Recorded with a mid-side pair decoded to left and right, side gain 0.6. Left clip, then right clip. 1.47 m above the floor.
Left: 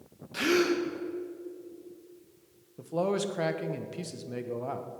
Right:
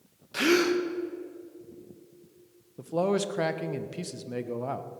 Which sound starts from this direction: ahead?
A man speaking, at 2.8 s.